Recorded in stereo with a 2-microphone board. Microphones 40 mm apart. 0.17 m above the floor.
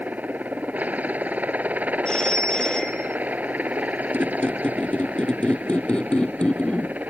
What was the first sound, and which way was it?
A helicopter, 40° right (ahead or behind).